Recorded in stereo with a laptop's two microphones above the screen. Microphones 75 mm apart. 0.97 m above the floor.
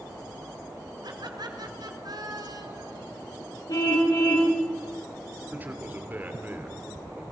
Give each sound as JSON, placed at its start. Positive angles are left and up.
{"t": 1.0, "sound": "laughter", "side_deg": -70, "distance_m": 4.0}
{"t": 3.7, "sound": "a car horn", "side_deg": 60, "distance_m": 6.5}
{"t": 5.5, "sound": "a man speaking", "side_deg": -25, "distance_m": 2.5}